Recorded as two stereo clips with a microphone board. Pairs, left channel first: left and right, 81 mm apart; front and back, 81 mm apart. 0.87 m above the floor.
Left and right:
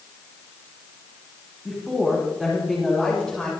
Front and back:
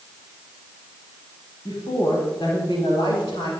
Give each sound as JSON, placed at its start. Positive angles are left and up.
{"t": 1.6, "sound": "a woman speaking", "azimuth_deg": -10, "distance_m": 5.5}